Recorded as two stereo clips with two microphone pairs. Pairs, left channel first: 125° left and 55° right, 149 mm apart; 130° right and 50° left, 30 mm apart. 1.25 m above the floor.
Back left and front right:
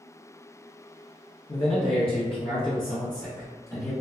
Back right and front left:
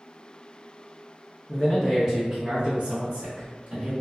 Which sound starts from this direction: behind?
A man speaking, at 1.5 s.